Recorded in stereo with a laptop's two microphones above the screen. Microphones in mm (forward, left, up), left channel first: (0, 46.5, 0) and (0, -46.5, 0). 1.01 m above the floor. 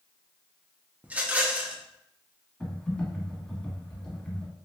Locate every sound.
1.0 s a rattle: 15° right (ahead or behind), 0.5 m
2.6 s typing on a keyboard: 10° left (ahead or behind), 1.2 m